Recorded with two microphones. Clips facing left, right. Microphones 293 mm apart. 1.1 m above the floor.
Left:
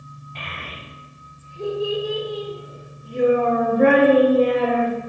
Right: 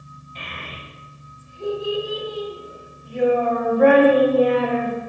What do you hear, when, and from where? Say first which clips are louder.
0.3 s a child speaking: even; 70° left (ahead or behind), 1.7 m; by 5.1 s 15° left (ahead or behind), 1.9 m